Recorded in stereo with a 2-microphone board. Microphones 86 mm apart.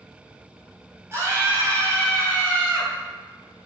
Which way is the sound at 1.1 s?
35° right (ahead or behind).